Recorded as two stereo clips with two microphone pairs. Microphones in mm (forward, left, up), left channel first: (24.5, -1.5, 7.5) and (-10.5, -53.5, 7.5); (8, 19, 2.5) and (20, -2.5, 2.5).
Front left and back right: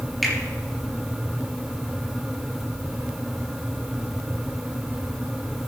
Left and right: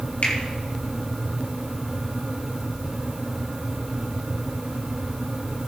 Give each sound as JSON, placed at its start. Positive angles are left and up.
{"t": 0.2, "sound": "a finger snap", "azimuth_deg": 145, "distance_m": 4.0}